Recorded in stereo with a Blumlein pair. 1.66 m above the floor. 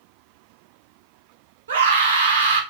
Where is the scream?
65° right, 2.5 m.